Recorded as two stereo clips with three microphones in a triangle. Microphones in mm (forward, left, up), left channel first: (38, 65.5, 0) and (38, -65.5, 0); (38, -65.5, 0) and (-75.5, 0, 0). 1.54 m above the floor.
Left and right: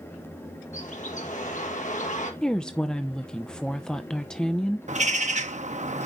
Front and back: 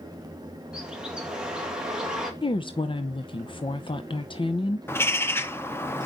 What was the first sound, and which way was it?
A bird, 65° left.